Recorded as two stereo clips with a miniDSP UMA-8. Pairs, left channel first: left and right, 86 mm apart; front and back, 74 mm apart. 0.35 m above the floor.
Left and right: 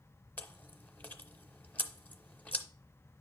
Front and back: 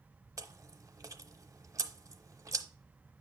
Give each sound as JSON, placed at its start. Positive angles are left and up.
{"t": 0.4, "sound": "chewing", "azimuth_deg": 155, "distance_m": 0.7}